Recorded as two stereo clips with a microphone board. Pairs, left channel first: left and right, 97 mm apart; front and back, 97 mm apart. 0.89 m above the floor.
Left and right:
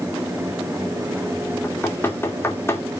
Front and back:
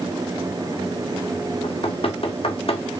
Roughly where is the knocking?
Ahead left.